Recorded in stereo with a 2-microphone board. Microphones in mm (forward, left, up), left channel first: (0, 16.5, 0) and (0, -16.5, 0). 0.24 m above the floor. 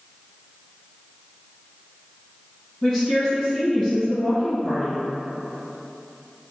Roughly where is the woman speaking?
Centre.